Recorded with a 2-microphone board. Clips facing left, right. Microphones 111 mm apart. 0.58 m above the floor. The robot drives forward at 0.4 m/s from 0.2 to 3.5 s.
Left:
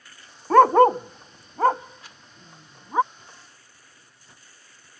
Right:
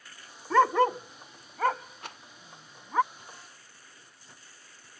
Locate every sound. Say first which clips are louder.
0.5 s a dog barking: left 8 dB; 60° left (ahead or behind); by 3.0 s 20° left (ahead or behind)
2.0 s a rattle: right 6 dB; 60° right (ahead or behind)